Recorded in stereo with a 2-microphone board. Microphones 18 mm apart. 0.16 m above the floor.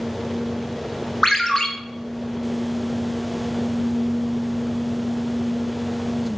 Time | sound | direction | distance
1.2 | a ringtone | 30° left (ahead or behind) | 0.6 m